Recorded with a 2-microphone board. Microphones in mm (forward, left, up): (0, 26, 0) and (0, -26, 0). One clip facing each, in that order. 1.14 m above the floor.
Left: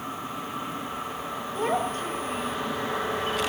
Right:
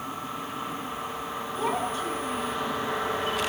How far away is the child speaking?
About 4.5 m.